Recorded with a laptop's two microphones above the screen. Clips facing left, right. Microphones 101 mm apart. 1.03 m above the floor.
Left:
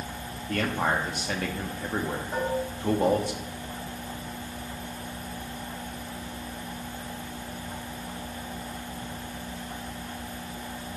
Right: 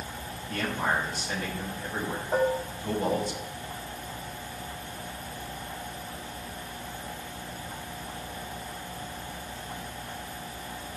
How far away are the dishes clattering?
About 1.3 m.